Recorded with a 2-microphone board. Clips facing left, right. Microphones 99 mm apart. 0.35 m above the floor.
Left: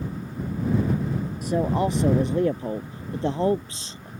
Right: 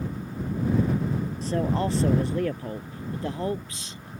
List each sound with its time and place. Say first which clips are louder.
1.4 s a man speaking: left 3 dB; 10° left (ahead or behind); by 4.1 s 30° left (ahead or behind)